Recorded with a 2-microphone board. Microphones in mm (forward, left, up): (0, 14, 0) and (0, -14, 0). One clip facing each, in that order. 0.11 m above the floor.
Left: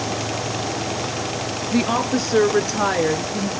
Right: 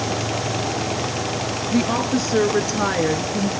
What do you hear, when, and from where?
1.7 s a woman speaking: 20° left (ahead or behind), 1.9 m; by 3.5 s 5° right (ahead or behind), 2.0 m